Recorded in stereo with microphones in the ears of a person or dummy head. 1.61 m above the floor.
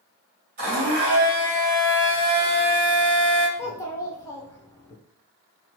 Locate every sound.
0.6 s a blender: 50° right (ahead or behind), 1.8 m
3.6 s a child speaking: 15° left (ahead or behind), 0.6 m